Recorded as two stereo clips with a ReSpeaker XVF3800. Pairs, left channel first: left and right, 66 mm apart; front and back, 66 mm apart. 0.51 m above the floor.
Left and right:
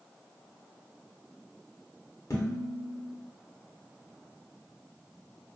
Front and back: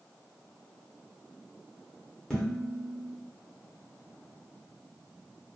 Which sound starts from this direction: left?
Dishes clattering, at 2.3 s.